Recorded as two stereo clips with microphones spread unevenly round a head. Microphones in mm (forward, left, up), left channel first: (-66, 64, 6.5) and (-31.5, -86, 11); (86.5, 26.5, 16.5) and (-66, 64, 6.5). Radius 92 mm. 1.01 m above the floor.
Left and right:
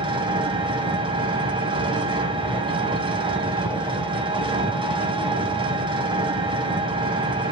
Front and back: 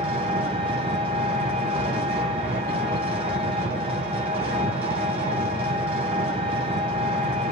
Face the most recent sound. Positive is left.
turn(degrees=-130)